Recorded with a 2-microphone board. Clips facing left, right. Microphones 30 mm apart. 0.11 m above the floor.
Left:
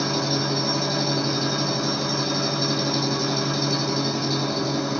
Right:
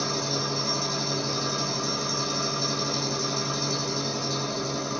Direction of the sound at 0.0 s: 35° left (ahead or behind).